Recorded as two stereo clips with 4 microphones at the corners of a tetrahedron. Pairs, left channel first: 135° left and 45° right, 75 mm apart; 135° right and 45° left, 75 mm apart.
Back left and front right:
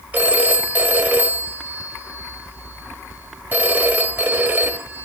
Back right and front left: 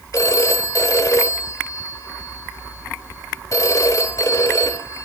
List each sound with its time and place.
0.1 s a phone ringing: 110° right, 1.3 m